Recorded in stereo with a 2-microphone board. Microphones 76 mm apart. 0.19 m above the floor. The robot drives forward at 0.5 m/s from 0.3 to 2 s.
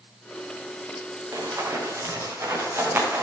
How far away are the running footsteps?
About 5.5 m.